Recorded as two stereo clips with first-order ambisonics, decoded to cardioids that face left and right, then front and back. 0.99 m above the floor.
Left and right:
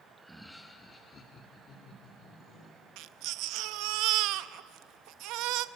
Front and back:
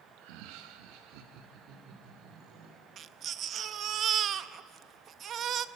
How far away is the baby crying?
About 0.6 m.